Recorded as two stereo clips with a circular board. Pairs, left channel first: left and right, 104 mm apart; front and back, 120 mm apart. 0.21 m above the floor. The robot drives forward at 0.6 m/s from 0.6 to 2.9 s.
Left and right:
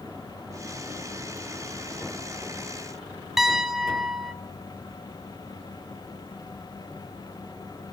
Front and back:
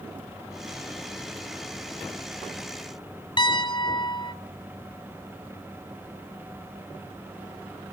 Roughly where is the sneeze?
No sneeze in this recording.